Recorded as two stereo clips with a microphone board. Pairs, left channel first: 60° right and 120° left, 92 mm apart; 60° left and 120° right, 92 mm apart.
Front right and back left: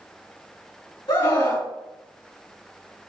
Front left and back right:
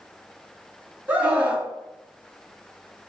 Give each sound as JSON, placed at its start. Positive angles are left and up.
{"t": 1.1, "sound": "a scream", "azimuth_deg": -50, "distance_m": 3.0}